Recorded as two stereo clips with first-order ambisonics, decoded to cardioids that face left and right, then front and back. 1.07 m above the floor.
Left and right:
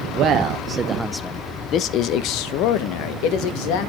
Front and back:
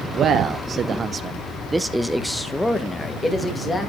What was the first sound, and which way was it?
A man speaking, 130° right.